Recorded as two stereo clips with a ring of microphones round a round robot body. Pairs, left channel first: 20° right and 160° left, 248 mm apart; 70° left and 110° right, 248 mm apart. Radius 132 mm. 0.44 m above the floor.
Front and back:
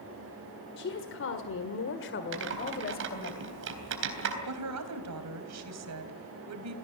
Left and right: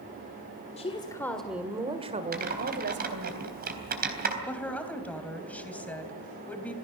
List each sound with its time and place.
0.8 s a woman speaking: 10° left, 1.9 m; by 3.3 s 80° right, 3 m
2.3 s typing on a keyboard: 165° right, 3.5 m
4.5 s a woman speaking: 150° left, 3.5 m